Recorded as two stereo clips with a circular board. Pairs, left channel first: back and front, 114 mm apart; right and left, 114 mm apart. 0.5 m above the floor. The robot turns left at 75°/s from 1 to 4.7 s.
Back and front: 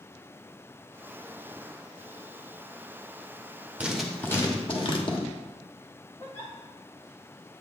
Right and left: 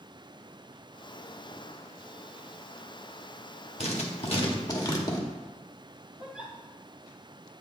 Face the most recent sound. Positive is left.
turn(degrees=170)